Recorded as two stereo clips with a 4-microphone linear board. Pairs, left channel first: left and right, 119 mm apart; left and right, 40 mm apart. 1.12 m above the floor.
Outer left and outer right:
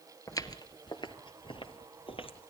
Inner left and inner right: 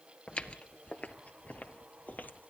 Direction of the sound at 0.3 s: 30° left (ahead or behind).